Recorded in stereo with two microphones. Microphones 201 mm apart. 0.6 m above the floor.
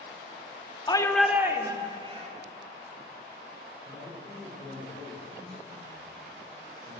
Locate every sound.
0.9 s a shout: 25° left (ahead or behind), 0.9 m; by 2.3 s 30° right (ahead or behind), 2 m
3.9 s a man speaking: 25° left (ahead or behind), 6.5 m